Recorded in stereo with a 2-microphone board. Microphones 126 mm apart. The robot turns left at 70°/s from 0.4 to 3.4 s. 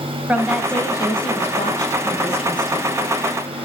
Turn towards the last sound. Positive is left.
turn(degrees=-20)